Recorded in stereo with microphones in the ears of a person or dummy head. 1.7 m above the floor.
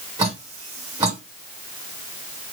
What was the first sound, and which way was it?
Dripping, 20° right (ahead or behind).